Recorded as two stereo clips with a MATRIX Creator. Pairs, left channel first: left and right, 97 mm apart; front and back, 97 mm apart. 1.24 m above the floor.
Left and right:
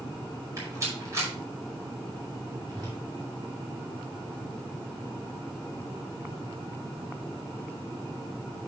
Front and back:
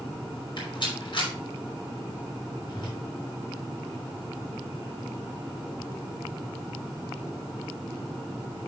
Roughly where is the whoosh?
Ahead right.